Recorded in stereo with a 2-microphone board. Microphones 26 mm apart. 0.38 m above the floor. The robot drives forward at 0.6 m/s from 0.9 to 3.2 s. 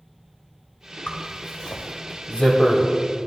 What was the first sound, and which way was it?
A zipper, 50° left (ahead or behind).